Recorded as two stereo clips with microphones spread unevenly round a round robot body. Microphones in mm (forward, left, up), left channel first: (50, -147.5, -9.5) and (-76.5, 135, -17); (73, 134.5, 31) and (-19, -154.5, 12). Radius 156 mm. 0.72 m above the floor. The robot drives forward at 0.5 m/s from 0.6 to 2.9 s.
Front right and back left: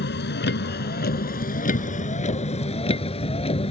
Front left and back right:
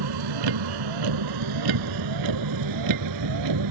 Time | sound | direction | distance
0.0 | a vehicle | 125° right | ?